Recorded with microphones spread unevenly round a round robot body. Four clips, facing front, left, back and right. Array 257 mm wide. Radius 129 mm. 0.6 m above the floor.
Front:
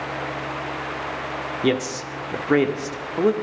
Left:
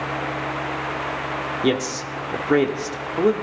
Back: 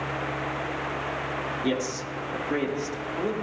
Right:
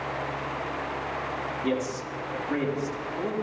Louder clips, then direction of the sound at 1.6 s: Left 7 dB, front 7 dB; 50° left.